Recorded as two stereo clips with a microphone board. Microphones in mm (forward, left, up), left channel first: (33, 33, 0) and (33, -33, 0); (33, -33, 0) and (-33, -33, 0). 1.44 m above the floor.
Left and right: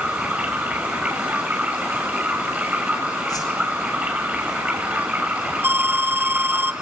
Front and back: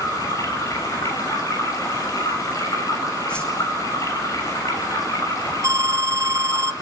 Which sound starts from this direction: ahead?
Running water, at 0.0 s.